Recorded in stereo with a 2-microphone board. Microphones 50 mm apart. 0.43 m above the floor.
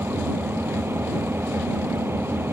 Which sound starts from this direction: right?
An engine running, at 0.0 s.